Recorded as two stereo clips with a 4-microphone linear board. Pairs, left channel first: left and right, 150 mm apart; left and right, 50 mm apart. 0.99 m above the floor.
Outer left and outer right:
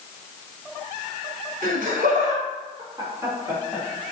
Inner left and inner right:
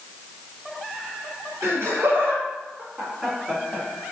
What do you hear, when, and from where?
1.6 s laughter: 70° right (ahead or behind), 1.4 m; by 3.9 s centre (ahead or behind), 1.4 m